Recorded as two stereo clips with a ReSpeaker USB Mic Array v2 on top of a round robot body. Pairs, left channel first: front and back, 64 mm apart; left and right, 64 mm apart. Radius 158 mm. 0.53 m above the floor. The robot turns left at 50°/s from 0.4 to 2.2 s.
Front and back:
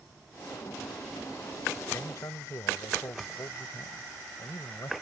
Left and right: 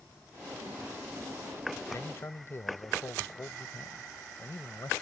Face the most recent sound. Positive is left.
turn(degrees=40)